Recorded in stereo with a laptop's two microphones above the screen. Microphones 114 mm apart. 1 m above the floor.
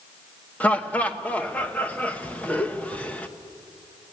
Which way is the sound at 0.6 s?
15° left (ahead or behind).